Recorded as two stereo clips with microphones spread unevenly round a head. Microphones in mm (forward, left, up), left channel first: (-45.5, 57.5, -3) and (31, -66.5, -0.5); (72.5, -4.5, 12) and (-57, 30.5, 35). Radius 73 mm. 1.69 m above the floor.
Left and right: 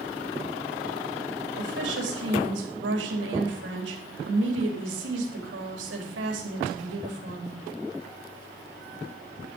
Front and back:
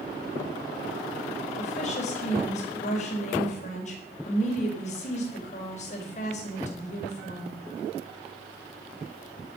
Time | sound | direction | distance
1.6 | a woman speaking | 55° right | 4 m